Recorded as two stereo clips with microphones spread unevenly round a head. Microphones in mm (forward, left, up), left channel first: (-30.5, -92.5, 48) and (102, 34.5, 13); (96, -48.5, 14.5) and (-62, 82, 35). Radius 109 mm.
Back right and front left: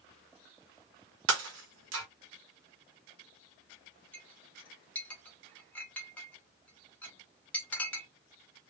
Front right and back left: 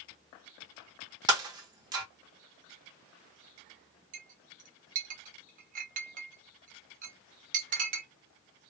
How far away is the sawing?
No sawing in this recording.